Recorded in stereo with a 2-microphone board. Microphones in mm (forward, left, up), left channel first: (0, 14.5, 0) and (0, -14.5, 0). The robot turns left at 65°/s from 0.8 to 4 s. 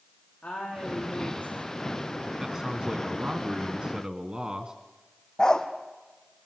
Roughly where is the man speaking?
Ahead.